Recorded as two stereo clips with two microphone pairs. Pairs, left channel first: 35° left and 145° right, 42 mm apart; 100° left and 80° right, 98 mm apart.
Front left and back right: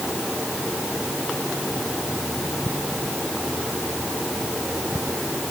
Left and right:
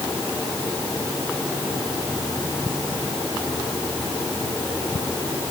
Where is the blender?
No blender in this recording.